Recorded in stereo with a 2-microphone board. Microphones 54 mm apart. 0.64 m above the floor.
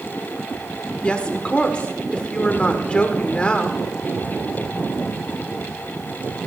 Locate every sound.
1.0 s a woman speaking: 20° left (ahead or behind), 1.7 m